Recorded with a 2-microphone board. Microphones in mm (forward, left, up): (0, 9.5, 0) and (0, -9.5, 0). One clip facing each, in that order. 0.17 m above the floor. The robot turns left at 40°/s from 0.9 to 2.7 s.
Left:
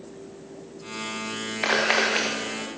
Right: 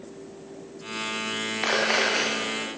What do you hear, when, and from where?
1.6 s a camera shutter: 40° left (ahead or behind), 4.5 m; by 2.3 s 10° left (ahead or behind), 4.5 m